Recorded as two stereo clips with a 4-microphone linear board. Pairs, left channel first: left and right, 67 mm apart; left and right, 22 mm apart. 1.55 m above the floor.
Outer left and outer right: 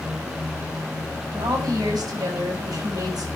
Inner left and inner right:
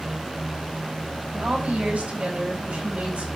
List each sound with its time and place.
1.3 s a woman speaking: 80° right, 7 m